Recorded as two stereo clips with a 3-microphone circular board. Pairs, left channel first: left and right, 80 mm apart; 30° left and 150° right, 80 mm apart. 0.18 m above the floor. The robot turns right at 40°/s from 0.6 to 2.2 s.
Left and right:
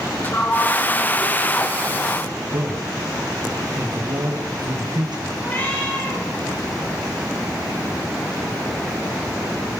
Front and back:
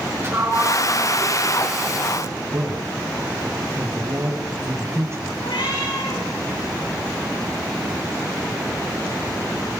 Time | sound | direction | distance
0.2 | a sliding door | 155° left | 6.5 m
2.5 | a man speaking | 100° right | 5 m
5.4 | a cat meowing | 20° left | 8 m